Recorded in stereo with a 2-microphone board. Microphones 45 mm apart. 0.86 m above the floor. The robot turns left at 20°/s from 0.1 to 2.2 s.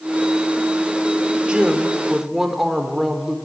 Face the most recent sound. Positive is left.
turn(degrees=-10)  # may be behind; listen again after turning